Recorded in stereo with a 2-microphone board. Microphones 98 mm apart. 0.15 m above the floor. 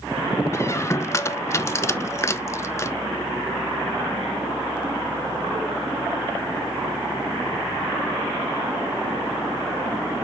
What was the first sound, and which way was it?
A squeak, 30° left (ahead or behind).